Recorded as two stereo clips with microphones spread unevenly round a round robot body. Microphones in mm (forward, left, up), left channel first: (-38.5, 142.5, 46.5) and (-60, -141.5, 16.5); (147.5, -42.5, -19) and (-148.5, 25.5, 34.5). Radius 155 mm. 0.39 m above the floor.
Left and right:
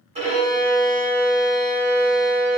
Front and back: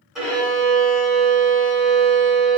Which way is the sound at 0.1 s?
85° right.